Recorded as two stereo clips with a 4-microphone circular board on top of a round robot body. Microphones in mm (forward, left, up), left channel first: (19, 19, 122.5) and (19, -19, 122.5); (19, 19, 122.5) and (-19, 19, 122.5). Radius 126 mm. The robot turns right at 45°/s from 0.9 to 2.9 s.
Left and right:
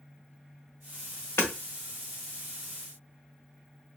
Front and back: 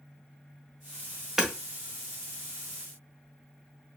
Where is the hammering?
100° left, 1.6 m; by 1.5 s 105° left, 1.6 m.